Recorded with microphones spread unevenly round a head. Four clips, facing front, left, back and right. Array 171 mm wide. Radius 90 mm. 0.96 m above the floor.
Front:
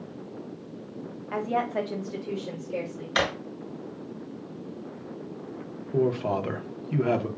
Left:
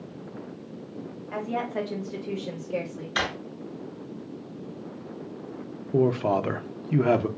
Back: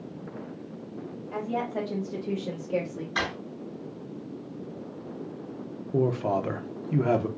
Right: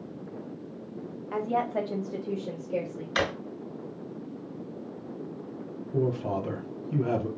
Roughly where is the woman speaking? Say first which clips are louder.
Right 2 dB, front 3 dB; ahead right.